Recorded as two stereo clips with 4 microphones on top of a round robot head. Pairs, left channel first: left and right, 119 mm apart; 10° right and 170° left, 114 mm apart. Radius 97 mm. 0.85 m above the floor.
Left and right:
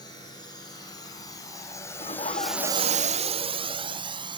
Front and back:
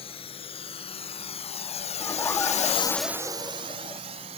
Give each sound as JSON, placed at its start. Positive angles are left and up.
{"t": 0.0, "sound": "a drone", "azimuth_deg": 25}
{"t": 2.0, "sound": "laughter", "azimuth_deg": 60}